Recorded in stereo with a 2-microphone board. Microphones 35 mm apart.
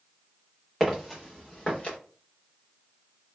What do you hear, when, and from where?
0.8 s footsteps: 10° left (ahead or behind), 1.5 m; by 2.0 s 35° left (ahead or behind), 1.6 m